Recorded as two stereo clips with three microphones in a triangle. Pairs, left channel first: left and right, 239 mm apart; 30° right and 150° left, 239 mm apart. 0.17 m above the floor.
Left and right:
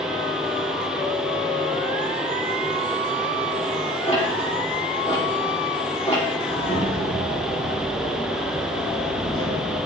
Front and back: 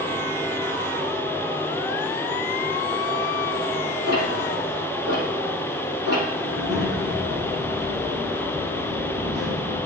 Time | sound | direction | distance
4.1 | ticking | 150° left | 4.5 m
6.4 | a child speaking | 140° left | 5.5 m